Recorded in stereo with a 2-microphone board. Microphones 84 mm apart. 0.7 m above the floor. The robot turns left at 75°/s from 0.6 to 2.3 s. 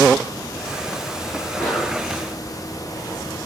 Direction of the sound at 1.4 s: 45° left.